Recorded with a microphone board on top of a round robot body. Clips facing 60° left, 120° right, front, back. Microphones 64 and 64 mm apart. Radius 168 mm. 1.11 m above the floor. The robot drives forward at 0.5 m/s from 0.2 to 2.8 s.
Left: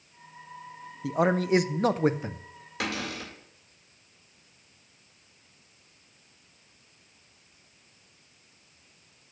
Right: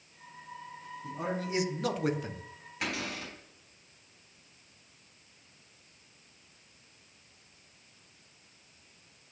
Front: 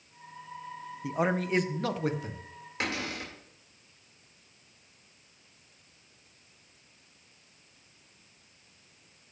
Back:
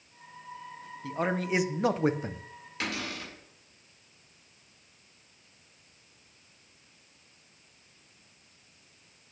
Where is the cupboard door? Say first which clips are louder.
Left 3 dB, front 1 dB; 70° left, 3 m.